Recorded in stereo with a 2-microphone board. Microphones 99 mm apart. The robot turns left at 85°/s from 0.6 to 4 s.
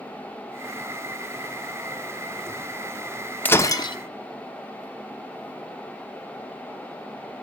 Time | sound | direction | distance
3.5 | breaking glass | 160° left | 1.0 m